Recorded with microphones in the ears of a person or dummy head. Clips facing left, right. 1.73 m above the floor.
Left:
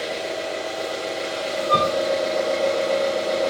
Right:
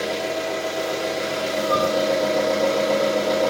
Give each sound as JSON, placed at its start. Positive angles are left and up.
{"t": 0.0, "sound": "an engine running", "side_deg": -55, "distance_m": 1.3}
{"t": 1.7, "sound": "a flute", "side_deg": 30, "distance_m": 0.6}